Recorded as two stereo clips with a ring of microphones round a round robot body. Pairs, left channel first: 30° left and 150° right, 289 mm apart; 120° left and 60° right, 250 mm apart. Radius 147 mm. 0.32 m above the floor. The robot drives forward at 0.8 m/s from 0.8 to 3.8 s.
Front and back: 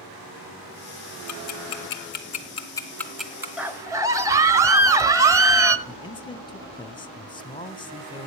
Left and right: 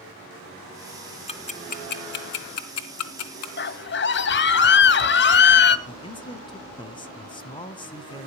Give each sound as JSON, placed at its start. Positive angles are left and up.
{"t": 1.3, "sound": "ticking", "azimuth_deg": 55, "distance_m": 1.5}
{"t": 3.6, "sound": "a scream", "azimuth_deg": 125, "distance_m": 1.2}
{"t": 5.9, "sound": "a man speaking", "azimuth_deg": 80, "distance_m": 1.1}